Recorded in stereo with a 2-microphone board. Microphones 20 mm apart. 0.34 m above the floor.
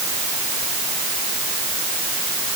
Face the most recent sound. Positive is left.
No sound to turn to.